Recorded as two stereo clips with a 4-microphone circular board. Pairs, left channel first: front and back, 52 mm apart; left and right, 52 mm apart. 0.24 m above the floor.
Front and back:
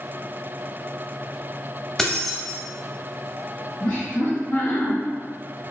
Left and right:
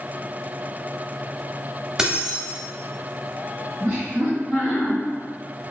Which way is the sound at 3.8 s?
15° right.